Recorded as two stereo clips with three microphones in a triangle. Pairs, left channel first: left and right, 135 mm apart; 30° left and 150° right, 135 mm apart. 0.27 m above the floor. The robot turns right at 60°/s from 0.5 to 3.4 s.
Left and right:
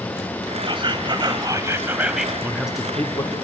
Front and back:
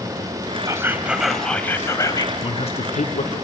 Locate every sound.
0.7 s whispering: 100° right, 1.4 m; by 2.3 s straight ahead, 1.4 m
2.4 s a man speaking: 20° right, 2.5 m; by 3.4 s 35° left, 2.5 m